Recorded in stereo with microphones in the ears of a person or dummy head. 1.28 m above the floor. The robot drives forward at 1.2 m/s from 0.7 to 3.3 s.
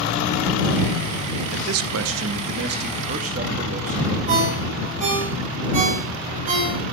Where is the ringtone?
45° right (ahead or behind), 8.5 m.